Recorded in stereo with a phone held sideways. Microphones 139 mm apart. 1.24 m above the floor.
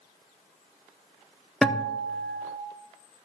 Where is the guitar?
Centre (ahead or behind), 0.7 m.